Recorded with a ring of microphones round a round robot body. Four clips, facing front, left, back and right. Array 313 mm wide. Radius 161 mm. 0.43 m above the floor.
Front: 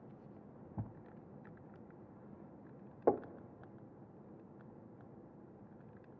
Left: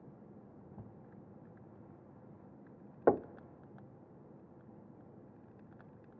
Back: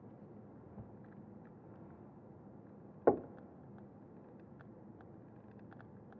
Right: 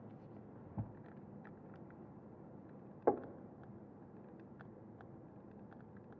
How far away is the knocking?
About 0.6 m.